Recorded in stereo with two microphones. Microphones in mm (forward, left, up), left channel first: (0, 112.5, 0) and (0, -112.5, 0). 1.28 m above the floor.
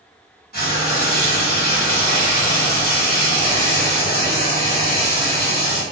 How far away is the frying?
About 1.1 m.